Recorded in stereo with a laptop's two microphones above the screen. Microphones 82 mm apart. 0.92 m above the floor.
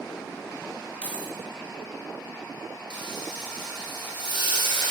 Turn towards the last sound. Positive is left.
turn(degrees=70)  # may be behind; listen again after turning